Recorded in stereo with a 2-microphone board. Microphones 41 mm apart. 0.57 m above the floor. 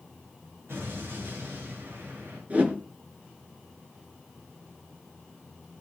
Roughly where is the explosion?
Right.